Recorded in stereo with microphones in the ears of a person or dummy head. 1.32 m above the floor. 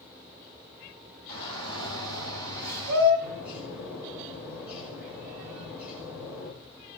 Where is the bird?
10° right (ahead or behind), 6 m.